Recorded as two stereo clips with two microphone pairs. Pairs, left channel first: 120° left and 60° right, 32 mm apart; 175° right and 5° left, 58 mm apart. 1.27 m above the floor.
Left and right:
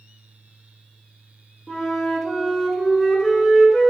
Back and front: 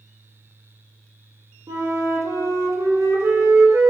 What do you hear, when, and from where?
1.7 s a flute: 35° left, 0.5 m